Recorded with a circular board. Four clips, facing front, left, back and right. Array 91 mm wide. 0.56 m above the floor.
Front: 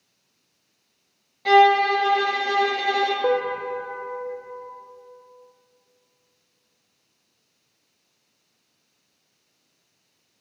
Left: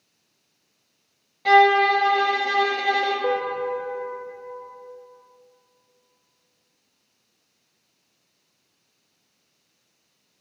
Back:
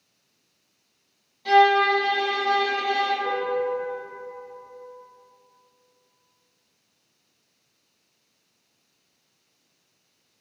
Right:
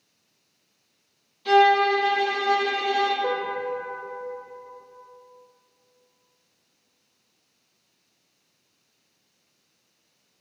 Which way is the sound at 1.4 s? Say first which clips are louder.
Left 2 dB, front 2 dB; 60° left.